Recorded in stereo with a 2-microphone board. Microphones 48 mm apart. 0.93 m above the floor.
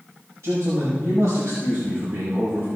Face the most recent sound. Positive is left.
turn(degrees=-75)  # may be behind; listen again after turning